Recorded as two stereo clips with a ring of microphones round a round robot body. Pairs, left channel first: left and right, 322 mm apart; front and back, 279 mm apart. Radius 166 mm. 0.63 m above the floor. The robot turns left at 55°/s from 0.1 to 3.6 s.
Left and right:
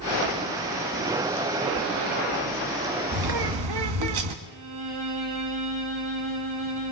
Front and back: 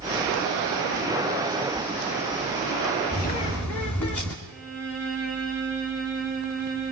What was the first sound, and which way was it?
A bird, 60° right.